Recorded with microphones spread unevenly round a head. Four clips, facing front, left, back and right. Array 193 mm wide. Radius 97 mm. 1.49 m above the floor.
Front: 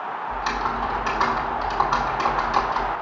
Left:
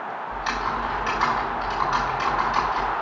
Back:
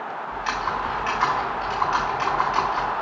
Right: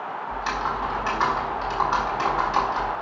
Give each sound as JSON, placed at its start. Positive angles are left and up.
{"t": 0.3, "sound": "typing on a keyboard", "azimuth_deg": -25, "distance_m": 1.8}